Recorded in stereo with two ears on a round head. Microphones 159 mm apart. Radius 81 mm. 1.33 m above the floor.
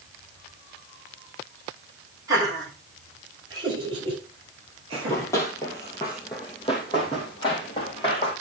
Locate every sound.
2.3 s laughter: 20° right (ahead or behind), 5.5 m; by 5.3 s 35° right (ahead or behind), 8 m
4.9 s running footsteps: 15° left (ahead or behind), 2.5 m; by 8.3 s 30° left (ahead or behind), 4 m